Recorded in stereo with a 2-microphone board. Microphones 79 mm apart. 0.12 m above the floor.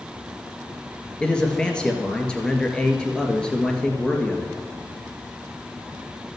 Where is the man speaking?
10° left (ahead or behind), 2 m.